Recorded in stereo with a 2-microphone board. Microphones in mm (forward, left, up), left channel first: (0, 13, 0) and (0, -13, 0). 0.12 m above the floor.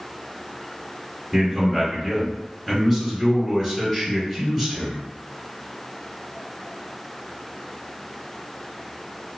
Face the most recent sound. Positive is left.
turn(degrees=15)  # may be behind; listen again after turning